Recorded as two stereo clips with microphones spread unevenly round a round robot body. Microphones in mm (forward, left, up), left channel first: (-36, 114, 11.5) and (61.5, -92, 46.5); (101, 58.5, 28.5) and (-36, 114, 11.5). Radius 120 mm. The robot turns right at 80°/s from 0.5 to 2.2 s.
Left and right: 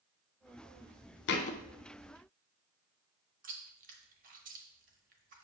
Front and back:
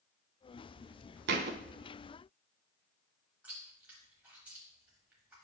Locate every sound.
1.3 s a thud: 160° left, 0.6 m; by 1.6 s 175° right, 0.6 m
3.4 s chewing: 120° right, 1.0 m